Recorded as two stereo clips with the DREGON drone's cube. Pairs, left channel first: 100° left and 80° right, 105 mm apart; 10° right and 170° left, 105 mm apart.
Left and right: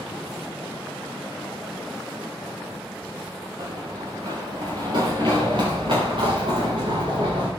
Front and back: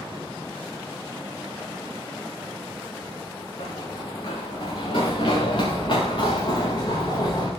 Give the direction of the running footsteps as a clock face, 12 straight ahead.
1 o'clock.